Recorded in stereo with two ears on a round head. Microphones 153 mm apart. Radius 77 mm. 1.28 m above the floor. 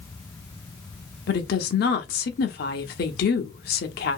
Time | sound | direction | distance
1.3 | a woman speaking | 60° left (ahead or behind) | 0.8 m